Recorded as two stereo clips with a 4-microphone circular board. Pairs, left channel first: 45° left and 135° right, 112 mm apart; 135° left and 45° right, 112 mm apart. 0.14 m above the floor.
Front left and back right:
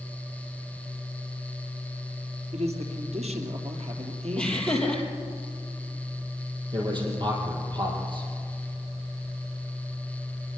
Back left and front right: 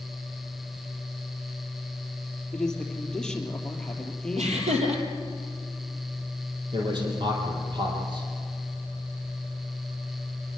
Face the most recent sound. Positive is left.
turn(degrees=-90)